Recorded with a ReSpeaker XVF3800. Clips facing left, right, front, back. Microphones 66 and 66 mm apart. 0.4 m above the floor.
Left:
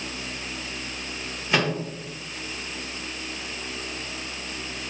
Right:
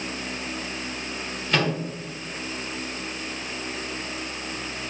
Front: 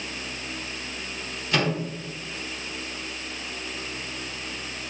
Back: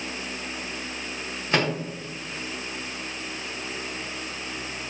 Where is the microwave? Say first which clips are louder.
Even, back 1 dB; 155° left, 0.7 m.